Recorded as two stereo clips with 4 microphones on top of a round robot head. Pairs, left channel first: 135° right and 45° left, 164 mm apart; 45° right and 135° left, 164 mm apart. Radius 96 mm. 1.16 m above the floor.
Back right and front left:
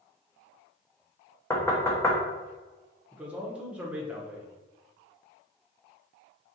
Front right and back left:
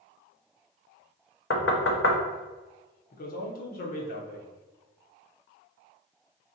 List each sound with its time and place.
1.5 s knocking: 60° right, 0.8 m
3.1 s a man speaking: 35° right, 1.1 m